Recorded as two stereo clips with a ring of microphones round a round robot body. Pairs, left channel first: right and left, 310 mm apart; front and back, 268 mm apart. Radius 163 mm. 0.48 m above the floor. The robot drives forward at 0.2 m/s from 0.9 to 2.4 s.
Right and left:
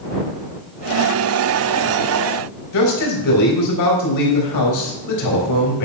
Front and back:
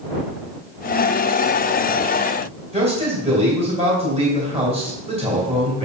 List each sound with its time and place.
2.7 s a man speaking: 110° right, 3.5 m